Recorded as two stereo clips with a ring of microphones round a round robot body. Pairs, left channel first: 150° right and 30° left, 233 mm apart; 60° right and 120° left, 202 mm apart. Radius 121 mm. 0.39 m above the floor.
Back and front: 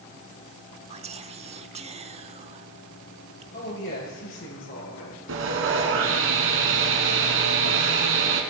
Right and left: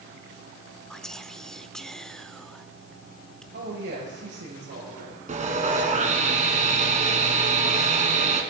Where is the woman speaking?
170° left, 8 m.